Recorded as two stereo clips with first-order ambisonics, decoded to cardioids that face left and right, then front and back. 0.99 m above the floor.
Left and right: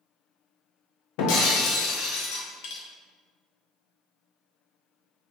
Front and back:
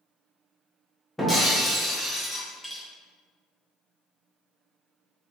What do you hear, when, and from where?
1.2 s breaking glass: 85° left, 0.9 m